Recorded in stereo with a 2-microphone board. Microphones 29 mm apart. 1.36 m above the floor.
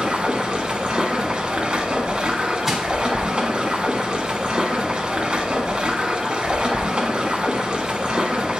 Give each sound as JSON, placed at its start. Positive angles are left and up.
{"t": 0.0, "sound": "running water", "side_deg": -30, "distance_m": 1.4}
{"t": 2.7, "sound": "crushing", "side_deg": -15, "distance_m": 1.3}